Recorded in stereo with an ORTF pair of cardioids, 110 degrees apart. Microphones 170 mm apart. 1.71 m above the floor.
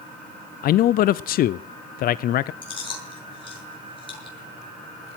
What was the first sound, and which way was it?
A man speaking, 60° left.